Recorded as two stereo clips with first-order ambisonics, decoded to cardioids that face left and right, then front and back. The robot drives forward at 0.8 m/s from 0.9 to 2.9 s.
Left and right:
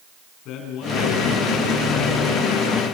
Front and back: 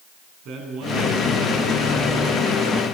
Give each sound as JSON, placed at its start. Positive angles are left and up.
{"t": 0.5, "sound": "a man speaking", "azimuth_deg": 135, "distance_m": 8.0}